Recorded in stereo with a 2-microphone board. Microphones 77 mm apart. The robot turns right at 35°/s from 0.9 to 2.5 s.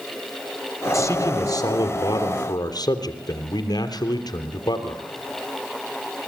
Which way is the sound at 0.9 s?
50° left.